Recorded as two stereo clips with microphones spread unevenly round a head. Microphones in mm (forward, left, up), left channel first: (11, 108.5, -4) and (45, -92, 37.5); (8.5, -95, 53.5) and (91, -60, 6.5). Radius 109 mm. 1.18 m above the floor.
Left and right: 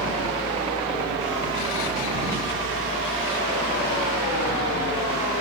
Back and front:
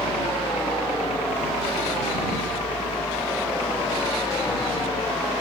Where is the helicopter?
150° right; by 5.4 s 155° right.